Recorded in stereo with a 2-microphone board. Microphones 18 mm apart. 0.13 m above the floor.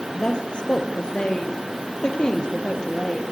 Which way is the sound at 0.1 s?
60° left (ahead or behind).